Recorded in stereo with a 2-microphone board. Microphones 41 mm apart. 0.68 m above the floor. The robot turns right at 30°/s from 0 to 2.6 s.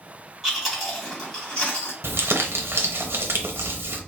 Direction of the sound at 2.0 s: 75° right (ahead or behind).